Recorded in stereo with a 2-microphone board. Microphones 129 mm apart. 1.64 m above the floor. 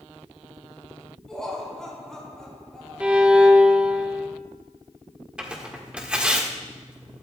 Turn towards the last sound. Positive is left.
turn(degrees=-10)  # may be behind; listen again after turning